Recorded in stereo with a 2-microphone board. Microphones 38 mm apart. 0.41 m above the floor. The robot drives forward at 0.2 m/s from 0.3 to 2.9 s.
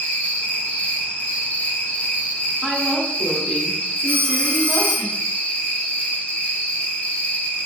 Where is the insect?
55° left (ahead or behind), 1.3 m; by 7.7 s 40° left (ahead or behind), 1.6 m.